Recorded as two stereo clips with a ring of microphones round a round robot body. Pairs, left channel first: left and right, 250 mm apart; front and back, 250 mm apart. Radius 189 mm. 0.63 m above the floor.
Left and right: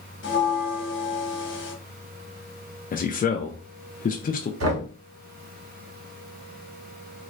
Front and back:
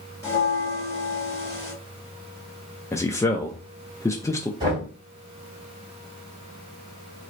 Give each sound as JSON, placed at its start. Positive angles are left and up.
{"t": 0.2, "sound": "a bell", "azimuth_deg": 75, "distance_m": 1.6}
{"t": 2.9, "sound": "a man speaking", "azimuth_deg": 70, "distance_m": 0.6}
{"t": 4.6, "sound": "knocking", "azimuth_deg": -105, "distance_m": 1.6}